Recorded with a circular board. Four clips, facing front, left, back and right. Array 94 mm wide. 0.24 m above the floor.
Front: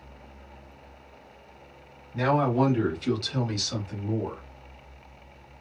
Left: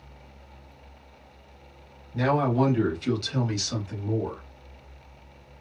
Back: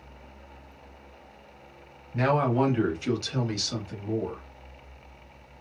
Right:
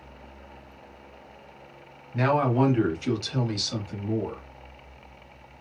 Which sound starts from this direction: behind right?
A man speaking, at 2.1 s.